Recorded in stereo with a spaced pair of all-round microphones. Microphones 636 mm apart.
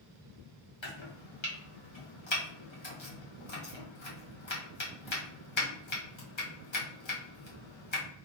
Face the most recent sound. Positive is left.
turn(degrees=50)  # may be behind; listen again after turning